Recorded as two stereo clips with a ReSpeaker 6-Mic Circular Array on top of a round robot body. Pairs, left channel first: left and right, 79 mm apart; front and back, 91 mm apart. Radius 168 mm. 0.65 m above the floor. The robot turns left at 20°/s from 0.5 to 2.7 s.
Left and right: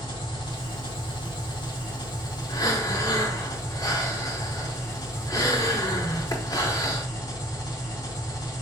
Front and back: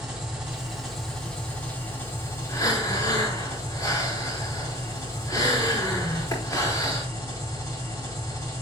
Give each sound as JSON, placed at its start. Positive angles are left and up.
{"t": 0.0, "sound": "an engine running", "azimuth_deg": 100, "distance_m": 3.5}
{"t": 2.5, "sound": "breathing", "azimuth_deg": 55, "distance_m": 4.5}